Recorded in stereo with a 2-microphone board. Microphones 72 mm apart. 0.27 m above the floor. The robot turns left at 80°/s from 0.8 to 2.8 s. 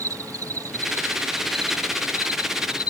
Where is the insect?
130° right; by 2.9 s 70° left.